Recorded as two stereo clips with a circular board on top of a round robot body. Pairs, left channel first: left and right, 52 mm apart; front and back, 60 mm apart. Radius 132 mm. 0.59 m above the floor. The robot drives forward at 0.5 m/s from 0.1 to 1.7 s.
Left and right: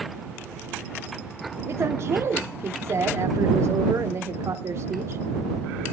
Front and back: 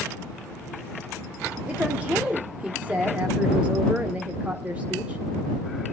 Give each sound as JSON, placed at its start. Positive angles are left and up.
{"t": 1.7, "sound": "a woman speaking", "azimuth_deg": -110, "distance_m": 1.8}